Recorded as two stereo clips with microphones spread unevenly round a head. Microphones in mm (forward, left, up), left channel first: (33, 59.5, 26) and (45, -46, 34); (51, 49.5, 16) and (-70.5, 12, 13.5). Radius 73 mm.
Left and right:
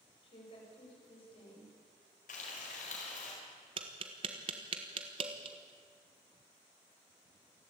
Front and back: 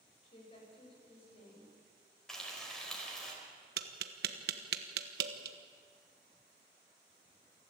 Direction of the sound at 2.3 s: 105° left.